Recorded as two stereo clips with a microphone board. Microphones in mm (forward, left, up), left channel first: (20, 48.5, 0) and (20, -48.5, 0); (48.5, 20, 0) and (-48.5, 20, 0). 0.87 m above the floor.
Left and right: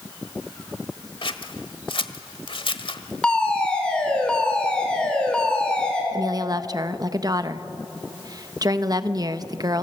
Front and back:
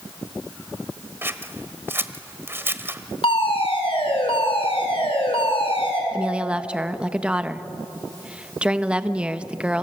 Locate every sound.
1.2 s scissors: 115° left, 1.3 m
3.2 s a fire alarm: 10° left, 5.5 m
6.1 s a woman speaking: 110° right, 0.9 m